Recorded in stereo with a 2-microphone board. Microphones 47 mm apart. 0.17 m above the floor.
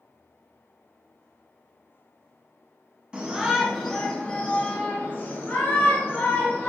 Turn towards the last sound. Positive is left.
turn(degrees=60)  # may be behind; listen again after turning